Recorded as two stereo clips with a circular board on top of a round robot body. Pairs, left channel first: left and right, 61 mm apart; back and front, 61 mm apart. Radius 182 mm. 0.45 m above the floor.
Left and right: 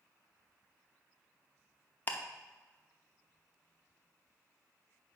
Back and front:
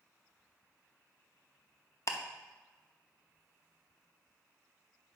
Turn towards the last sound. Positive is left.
turn(degrees=150)